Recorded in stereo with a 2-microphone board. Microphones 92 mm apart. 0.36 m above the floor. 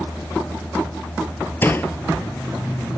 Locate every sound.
1.6 s a door slam: 25° left (ahead or behind)